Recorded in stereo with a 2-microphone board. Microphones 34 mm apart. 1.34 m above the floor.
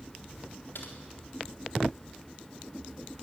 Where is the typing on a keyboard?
85° left, 4 m.